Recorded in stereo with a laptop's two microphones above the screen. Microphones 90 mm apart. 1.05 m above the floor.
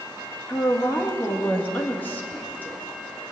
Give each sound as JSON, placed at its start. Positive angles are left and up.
{"t": 0.5, "sound": "a woman speaking", "side_deg": 20, "distance_m": 1.5}